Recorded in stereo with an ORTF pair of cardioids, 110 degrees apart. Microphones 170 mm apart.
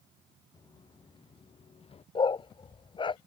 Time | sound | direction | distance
0.5 | footsteps | 25° left | ?
2.1 | a dog barking | 30° left | ?